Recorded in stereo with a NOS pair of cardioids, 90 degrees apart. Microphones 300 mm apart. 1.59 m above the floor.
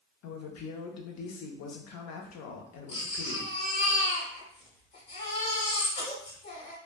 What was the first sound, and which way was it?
A woman speaking, 70° left.